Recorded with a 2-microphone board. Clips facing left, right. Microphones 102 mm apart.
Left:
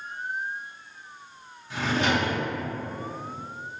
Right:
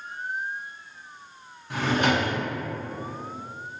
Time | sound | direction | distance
1.7 | a drawer | 55° right (ahead or behind) | 0.6 m